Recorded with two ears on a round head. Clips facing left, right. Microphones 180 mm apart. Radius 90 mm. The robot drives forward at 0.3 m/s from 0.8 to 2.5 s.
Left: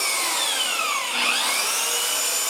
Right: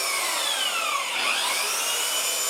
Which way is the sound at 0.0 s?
80° left.